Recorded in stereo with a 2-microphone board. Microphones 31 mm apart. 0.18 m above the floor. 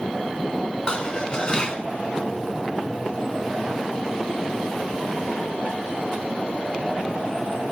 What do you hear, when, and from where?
0.9 s dishes clattering: 30° left (ahead or behind), 1.0 m